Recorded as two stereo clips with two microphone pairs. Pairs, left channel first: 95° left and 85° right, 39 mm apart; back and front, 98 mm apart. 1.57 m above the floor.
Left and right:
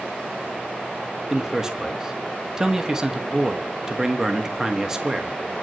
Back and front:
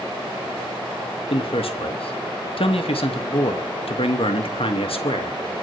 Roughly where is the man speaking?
Behind.